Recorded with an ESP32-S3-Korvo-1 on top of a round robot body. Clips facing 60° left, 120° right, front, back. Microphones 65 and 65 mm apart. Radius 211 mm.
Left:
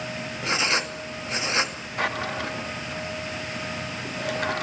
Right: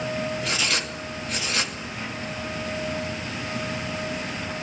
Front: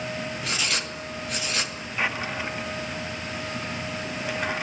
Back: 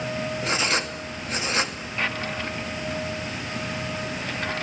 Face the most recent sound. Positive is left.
turn(degrees=80)